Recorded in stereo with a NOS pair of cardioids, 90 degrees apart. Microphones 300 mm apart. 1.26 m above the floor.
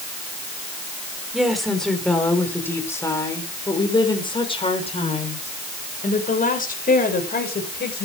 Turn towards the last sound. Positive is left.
turn(degrees=35)